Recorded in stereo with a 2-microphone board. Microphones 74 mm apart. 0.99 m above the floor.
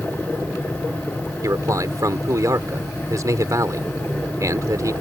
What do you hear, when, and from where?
1.4 s a man speaking: 50° right (ahead or behind)